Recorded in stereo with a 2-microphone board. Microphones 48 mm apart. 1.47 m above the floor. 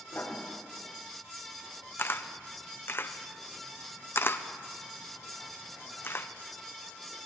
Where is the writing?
45° left (ahead or behind), 5 m.